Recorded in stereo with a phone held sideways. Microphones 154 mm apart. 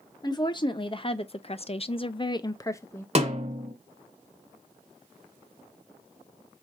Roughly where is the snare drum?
Right.